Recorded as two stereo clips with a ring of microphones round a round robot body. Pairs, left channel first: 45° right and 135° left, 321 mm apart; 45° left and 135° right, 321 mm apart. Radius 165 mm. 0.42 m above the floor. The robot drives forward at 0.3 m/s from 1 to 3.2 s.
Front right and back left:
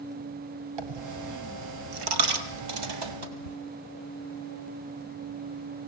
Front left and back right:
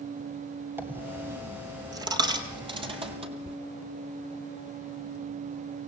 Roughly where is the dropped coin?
Behind left.